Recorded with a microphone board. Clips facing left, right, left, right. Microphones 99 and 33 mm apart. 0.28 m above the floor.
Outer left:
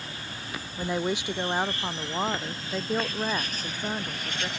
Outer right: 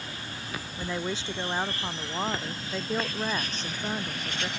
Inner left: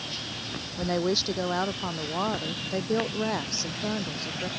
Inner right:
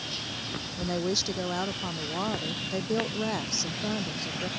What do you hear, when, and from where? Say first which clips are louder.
0.8 s a woman speaking: outer left 5 dB, inner left 4 dB; 20° left (ahead or behind); by 4.5 s 5° left (ahead or behind)